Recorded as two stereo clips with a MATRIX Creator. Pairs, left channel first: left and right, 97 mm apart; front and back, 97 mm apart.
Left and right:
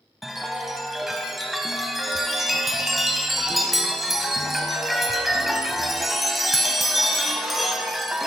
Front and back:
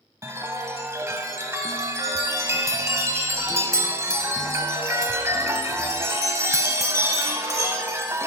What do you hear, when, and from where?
0.2 s a chime: 175° right, 0.7 m